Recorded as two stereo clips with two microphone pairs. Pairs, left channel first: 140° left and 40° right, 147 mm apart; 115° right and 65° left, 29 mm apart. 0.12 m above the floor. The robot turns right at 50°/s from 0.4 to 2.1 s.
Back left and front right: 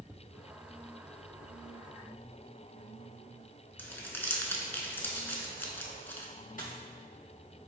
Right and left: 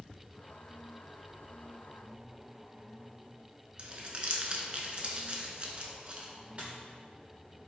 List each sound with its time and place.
3.8 s crumpling: 75° left, 0.5 m
6.6 s a dropped coin: 110° left, 1.6 m